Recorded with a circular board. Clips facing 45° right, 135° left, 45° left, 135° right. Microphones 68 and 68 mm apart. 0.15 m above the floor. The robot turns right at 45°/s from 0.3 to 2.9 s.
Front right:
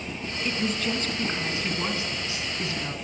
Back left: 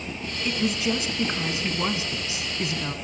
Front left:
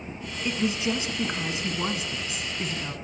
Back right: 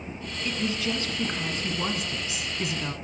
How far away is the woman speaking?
About 1.1 m.